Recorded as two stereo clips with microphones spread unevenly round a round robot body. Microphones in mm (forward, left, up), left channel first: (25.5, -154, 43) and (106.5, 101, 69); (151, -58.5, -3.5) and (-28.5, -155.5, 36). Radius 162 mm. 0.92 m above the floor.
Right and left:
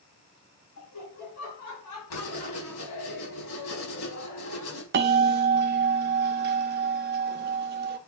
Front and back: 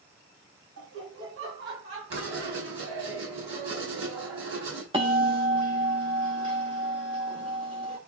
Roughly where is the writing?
Behind right.